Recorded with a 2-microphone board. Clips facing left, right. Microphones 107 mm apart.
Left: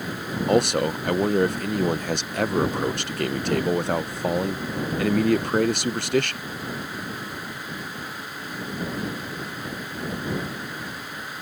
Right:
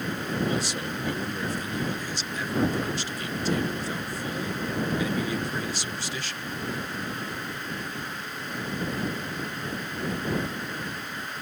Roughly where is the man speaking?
Left.